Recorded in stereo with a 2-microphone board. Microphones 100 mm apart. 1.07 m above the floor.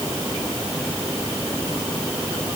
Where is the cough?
I don't hear a cough.